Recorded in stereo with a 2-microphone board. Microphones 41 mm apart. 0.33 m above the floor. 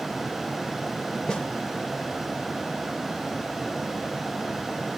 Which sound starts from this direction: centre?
A snare drum, at 1.3 s.